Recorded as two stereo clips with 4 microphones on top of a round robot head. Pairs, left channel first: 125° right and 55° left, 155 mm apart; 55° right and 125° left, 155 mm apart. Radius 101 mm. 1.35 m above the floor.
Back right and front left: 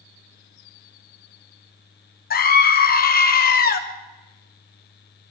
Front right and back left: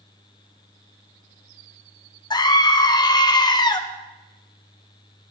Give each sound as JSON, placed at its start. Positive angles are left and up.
{"t": 2.3, "sound": "a scream", "azimuth_deg": -115, "distance_m": 1.7}